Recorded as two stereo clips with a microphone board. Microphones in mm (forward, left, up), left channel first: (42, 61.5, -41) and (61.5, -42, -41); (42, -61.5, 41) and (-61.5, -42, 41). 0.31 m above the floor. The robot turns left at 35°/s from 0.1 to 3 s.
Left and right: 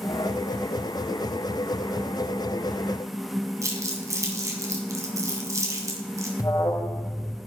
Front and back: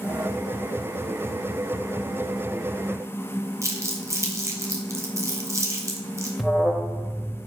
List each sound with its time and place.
3.6 s crumpling: 130° right, 1.4 m
6.4 s an alarm: 85° left, 0.8 m